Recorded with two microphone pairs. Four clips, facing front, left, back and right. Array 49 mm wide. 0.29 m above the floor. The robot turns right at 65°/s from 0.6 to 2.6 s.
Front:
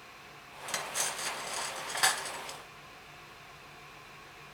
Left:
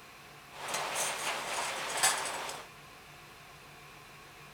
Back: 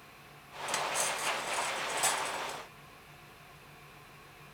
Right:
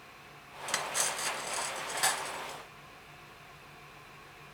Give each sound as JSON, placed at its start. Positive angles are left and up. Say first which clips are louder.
{"t": 0.7, "sound": "cutlery clinking", "louder": "right 1 dB, back 3 dB", "azimuth_deg": -90, "distance_m": 1.8}